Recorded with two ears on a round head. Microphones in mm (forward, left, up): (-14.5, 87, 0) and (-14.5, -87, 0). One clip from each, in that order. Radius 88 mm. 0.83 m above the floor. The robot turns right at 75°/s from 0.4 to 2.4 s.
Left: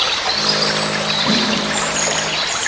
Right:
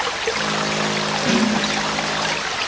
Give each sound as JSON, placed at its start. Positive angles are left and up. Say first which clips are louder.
{"t": 1.3, "sound": "a snare drum", "louder": "left 2 dB", "side_deg": -75, "distance_m": 2.0}